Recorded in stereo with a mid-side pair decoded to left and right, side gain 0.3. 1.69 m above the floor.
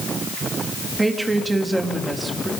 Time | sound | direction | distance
1.0 | a woman speaking | 25° right | 3 m